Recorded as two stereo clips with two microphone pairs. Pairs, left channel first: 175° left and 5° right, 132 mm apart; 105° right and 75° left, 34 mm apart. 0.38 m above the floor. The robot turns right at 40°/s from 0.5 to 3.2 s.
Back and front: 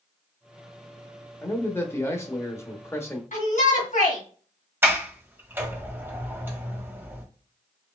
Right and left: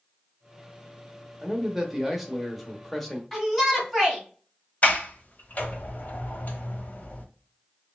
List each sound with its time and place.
1.4 s a man speaking: 130° left, 0.9 m; by 3.2 s 160° right, 0.9 m
3.3 s a shout: 170° left, 3 m
4.8 s a sliding door: 80° right, 1.1 m